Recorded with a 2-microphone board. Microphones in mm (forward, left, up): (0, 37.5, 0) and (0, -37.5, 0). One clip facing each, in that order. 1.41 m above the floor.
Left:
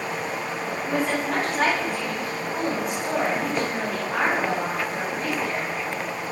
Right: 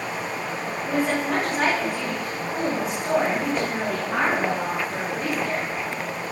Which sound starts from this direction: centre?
A woman speaking, at 0.8 s.